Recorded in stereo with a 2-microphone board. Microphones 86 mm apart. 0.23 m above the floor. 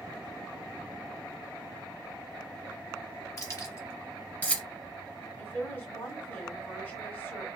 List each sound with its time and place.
3.4 s keys jangling: 40° left (ahead or behind), 1.2 m; by 4.6 s 10° left (ahead or behind), 0.9 m
5.4 s a woman speaking: 20° left (ahead or behind), 1.6 m